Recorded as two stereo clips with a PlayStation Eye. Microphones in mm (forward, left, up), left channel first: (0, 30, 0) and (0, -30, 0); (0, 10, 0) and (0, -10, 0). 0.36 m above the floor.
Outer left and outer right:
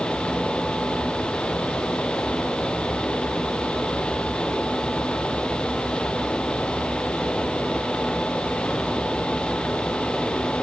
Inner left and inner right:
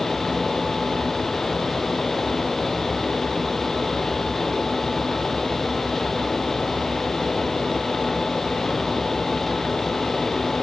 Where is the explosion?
I don't hear an explosion.